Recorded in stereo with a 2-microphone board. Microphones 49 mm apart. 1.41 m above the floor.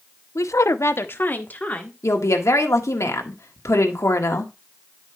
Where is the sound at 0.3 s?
75° left (ahead or behind), 0.7 m; by 1.9 s 30° left (ahead or behind), 1.7 m.